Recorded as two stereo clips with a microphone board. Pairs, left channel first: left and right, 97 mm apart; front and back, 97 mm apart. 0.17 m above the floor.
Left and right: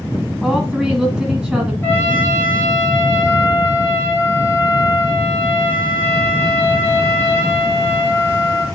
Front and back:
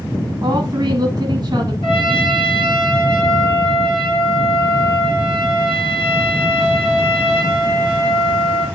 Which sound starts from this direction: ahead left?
A trumpet, at 1.8 s.